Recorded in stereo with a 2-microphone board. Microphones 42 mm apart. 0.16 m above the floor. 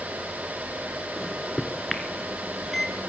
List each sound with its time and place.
1.2 s a microwave: 5° left (ahead or behind), 1.8 m